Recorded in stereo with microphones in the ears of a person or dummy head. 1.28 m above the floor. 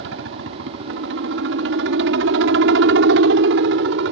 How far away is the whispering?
I don't hear whispering.